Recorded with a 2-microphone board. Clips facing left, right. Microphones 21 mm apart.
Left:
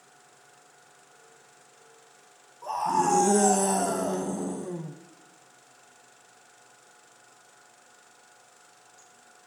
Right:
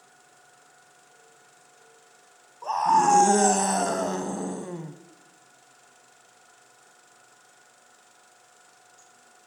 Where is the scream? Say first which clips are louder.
Right 5 dB; 30° right (ahead or behind), 1.3 m.